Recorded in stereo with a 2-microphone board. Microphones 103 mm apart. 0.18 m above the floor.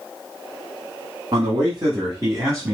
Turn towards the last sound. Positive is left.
turn(degrees=-25)  # may be behind; listen again after turning